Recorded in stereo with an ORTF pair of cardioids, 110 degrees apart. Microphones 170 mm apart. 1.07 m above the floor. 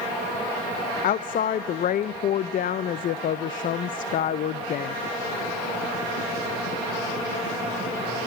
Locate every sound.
1.0 s a woman speaking: 55° left, 0.7 m